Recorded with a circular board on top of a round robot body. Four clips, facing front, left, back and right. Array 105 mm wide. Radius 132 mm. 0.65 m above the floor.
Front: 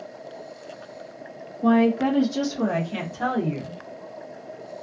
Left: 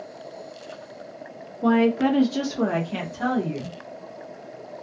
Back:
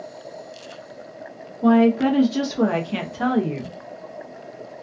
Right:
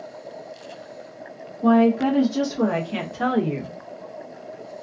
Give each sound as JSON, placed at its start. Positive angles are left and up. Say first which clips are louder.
{"t": 1.6, "sound": "a woman speaking", "louder": "right 2 dB, back 3 dB", "azimuth_deg": 130, "distance_m": 1.3}